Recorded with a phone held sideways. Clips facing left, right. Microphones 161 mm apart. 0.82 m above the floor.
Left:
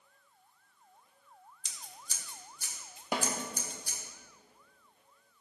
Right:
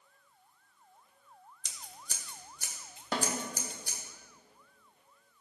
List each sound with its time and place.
1.6 s scissors: 70° right (ahead or behind), 1.5 m
3.1 s a snare drum: 15° left (ahead or behind), 1.5 m